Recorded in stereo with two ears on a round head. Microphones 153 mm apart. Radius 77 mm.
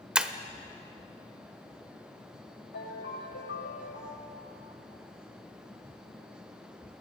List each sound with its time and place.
0.1 s breaking glass: 5° right (ahead or behind), 0.9 m
2.7 s a ringtone: 70° left (ahead or behind), 9 m